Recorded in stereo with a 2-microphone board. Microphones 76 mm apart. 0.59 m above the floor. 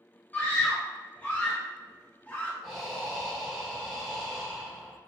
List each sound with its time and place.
0.3 s a scream: 20° left (ahead or behind), 0.7 m
2.6 s breathing: centre (ahead or behind), 1.3 m